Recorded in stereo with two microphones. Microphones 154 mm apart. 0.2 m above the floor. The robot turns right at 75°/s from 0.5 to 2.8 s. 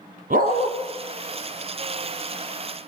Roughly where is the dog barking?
Right.